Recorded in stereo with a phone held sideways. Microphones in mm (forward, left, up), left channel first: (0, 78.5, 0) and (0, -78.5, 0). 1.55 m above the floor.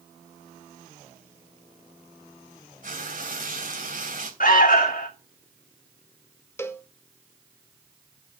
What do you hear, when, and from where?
2.8 s frying: 55° right (ahead or behind), 3 m
4.4 s an alarm: 60° left (ahead or behind), 2.5 m
6.6 s a cowbell: 15° left (ahead or behind), 1.0 m